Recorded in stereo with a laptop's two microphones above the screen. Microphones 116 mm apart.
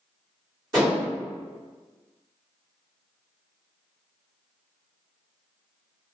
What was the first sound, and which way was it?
Dishes clattering, centre (ahead or behind).